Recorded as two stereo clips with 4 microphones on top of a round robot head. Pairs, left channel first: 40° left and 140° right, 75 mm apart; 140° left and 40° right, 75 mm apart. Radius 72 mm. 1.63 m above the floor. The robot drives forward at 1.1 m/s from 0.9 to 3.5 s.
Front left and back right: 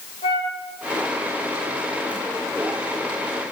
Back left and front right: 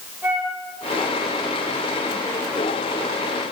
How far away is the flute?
About 5 m.